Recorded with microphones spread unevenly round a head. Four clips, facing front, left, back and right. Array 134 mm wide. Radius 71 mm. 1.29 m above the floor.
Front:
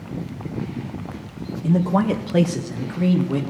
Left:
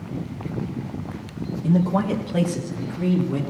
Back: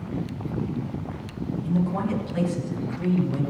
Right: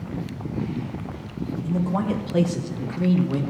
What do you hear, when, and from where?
1.6 s a man speaking: 30° left, 0.8 m; by 3.4 s 20° right, 2.0 m